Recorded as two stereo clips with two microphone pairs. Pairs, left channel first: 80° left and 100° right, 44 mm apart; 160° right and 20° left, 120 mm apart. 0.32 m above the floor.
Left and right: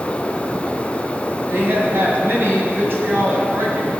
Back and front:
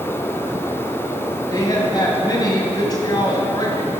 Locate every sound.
1.5 s a woman speaking: 115° right, 2.5 m